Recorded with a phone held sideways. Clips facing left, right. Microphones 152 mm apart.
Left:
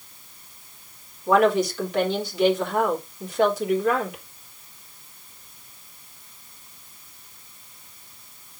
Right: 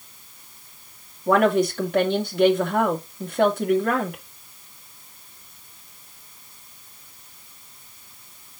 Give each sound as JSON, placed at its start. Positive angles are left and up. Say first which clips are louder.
{"t": 1.3, "sound": "a woman speaking", "louder": "even", "side_deg": -55, "distance_m": 2.5}